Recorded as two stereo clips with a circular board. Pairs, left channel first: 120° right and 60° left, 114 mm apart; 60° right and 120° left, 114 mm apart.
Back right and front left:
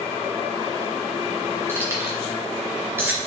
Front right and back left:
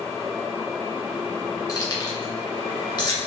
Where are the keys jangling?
5° right, 2 m; by 3.2 s 10° right, 3 m.